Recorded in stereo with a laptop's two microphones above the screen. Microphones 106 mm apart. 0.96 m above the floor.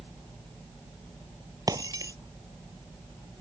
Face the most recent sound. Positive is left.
turn(degrees=-35)  # may be behind; listen again after turning